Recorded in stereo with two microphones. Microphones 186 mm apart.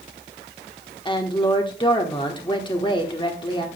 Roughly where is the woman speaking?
Left.